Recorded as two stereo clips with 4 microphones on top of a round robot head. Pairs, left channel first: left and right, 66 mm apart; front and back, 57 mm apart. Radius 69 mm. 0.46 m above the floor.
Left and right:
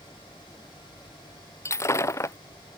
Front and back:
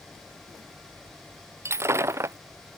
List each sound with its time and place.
1.6 s breaking glass: 135° left